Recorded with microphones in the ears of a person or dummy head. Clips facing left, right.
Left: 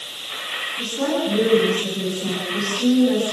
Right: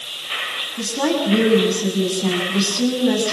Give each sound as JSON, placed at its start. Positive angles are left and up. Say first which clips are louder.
{"t": 0.8, "sound": "a woman speaking", "louder": "right 2 dB", "side_deg": -75, "distance_m": 8.0}